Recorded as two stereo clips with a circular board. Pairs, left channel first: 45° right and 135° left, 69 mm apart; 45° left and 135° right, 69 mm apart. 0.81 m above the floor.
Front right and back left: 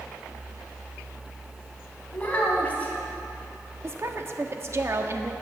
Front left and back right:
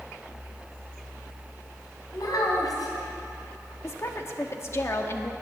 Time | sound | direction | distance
2.1 | a child speaking | 20° left | 3.5 m
3.8 | a woman speaking | 90° left | 1.3 m